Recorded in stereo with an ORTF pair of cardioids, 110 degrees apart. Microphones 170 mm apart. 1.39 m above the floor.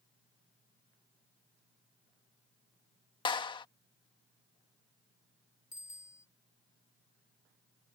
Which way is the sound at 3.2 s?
25° left.